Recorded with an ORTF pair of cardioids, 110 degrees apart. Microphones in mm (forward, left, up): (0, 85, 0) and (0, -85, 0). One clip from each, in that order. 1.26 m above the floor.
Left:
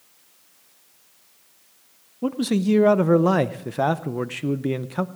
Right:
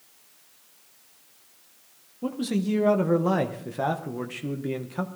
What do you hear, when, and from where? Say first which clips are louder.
2.2 s a man speaking: left 5 dB; 30° left, 0.6 m